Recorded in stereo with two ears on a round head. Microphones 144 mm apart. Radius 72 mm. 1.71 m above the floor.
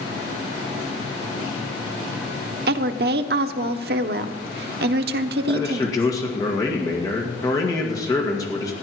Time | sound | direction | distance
2.7 | a woman speaking | 65° right (ahead or behind) | 0.8 m
5.5 | a man speaking | 20° left (ahead or behind) | 1.9 m